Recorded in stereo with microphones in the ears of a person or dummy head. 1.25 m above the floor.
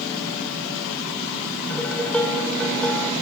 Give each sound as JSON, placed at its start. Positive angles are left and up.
{"t": 1.7, "sound": "dishes clattering", "side_deg": 5, "distance_m": 3.0}